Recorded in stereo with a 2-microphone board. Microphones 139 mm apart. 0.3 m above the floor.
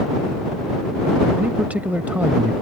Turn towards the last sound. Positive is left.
turn(degrees=-10)  # may be behind; listen again after turning